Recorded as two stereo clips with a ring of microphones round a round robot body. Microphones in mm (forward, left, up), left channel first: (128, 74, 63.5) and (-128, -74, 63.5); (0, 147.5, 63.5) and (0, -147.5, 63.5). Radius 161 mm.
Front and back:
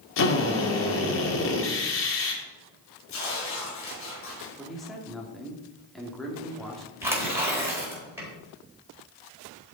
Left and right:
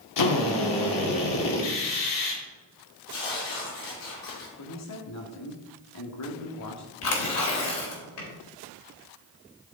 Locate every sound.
0.2 s a drill: 75° left, 2.5 m
3.1 s tearing paper: 80° left, 5.5 m
4.6 s a man speaking: 120° left, 2 m
7.0 s tearing paper: 130° left, 3.5 m